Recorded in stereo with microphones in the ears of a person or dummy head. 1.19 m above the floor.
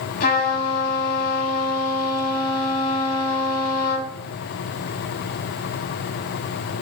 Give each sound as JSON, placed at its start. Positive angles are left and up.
{"t": 0.2, "sound": "a trumpet", "side_deg": 50, "distance_m": 6.0}